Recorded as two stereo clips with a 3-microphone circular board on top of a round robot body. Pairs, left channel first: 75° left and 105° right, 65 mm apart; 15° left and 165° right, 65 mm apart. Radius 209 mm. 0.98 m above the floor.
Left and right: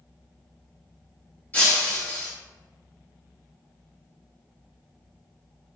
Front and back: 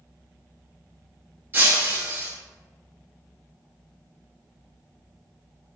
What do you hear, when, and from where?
1.5 s breaking glass: 135° left, 2 m